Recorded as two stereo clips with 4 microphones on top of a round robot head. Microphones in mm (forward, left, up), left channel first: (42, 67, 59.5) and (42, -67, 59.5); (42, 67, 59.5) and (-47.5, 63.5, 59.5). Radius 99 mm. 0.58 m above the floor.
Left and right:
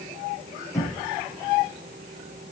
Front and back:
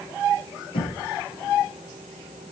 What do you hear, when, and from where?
0.7 s knocking: 20° left, 6 m